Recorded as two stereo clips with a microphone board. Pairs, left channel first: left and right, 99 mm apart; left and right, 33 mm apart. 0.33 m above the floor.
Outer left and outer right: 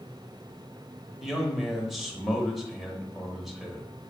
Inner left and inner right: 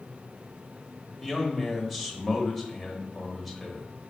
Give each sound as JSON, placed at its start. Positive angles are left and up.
{"t": 1.2, "sound": "a man speaking", "side_deg": 0, "distance_m": 1.0}